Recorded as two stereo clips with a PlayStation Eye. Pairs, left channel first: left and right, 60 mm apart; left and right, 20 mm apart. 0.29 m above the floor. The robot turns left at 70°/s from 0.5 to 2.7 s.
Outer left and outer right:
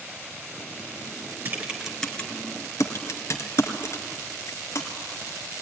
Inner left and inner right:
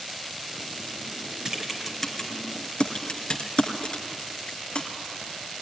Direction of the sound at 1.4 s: 35° right (ahead or behind).